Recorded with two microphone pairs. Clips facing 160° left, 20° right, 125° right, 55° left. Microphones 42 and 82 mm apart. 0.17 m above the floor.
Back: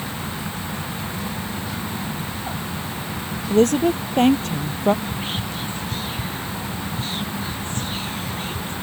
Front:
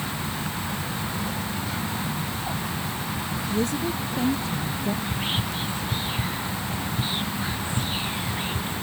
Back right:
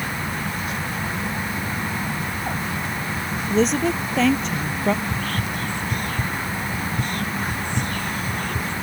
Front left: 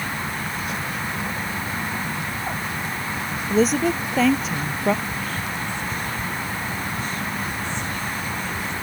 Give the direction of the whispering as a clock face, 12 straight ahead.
3 o'clock.